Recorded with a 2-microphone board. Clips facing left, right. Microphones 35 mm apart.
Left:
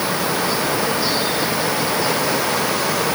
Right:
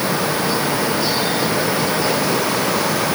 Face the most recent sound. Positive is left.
No sound to turn to.